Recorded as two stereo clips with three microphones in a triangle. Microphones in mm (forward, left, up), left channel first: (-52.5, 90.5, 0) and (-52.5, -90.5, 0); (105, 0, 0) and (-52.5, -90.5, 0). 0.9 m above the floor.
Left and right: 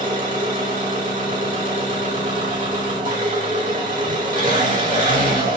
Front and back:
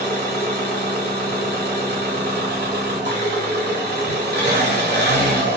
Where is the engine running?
130° right, 1.8 m.